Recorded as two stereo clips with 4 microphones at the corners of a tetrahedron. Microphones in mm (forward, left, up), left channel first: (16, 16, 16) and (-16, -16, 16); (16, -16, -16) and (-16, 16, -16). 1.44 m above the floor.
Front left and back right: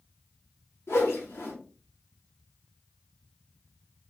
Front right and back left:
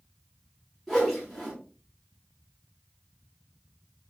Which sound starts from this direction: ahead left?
A whoosh, at 0.9 s.